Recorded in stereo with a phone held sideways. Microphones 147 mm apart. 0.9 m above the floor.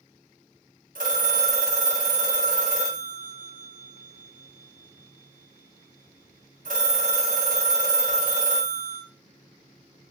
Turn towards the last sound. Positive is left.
turn(degrees=-70)  # may be behind; listen again after turning